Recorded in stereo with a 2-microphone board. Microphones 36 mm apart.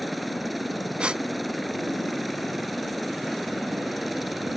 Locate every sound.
0.0 s a helicopter: centre (ahead or behind)
1.0 s a gasp: 30° right (ahead or behind)